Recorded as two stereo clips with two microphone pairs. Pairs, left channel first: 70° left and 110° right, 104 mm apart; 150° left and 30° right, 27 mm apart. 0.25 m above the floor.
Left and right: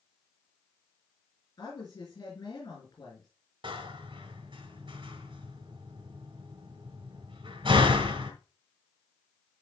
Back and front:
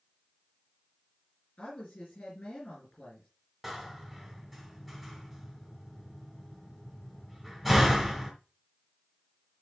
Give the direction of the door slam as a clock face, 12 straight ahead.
4 o'clock.